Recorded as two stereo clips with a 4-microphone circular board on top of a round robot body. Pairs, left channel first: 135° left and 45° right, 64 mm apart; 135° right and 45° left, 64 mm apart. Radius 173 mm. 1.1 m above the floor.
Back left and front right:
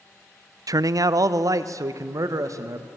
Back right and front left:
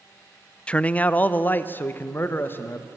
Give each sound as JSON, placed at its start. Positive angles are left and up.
{"t": 0.7, "sound": "a man speaking", "azimuth_deg": -60, "distance_m": 0.6}